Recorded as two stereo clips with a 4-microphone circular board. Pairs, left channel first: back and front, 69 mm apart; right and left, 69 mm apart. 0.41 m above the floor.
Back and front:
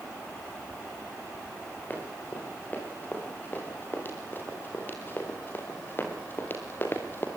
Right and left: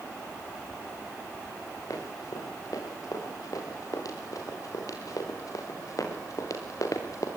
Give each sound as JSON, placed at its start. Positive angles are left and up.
{"t": 1.9, "sound": "running footsteps", "azimuth_deg": -115, "distance_m": 8.0}